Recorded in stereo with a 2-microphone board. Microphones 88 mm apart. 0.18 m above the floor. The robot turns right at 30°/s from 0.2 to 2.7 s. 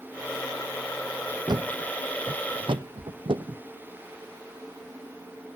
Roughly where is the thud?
Right.